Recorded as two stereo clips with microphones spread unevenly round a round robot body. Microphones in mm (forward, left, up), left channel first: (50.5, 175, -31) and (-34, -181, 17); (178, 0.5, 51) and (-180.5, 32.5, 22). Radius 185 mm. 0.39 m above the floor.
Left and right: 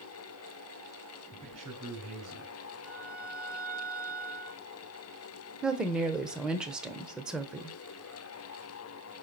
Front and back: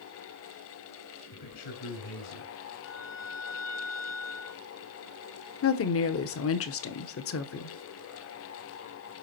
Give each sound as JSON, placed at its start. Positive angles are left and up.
{"t": 1.3, "sound": "a man speaking", "azimuth_deg": -30, "distance_m": 5.0}
{"t": 2.8, "sound": "a violin", "azimuth_deg": -10, "distance_m": 1.1}
{"t": 5.6, "sound": "a woman speaking", "azimuth_deg": -5, "distance_m": 1.1}